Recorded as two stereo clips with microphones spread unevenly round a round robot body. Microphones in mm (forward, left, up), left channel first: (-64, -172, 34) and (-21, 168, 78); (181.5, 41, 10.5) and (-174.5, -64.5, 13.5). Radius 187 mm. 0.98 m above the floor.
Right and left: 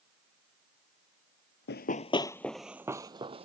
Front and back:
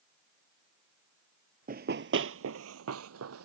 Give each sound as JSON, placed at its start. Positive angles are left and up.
{"t": 1.7, "sound": "running footsteps", "azimuth_deg": -135}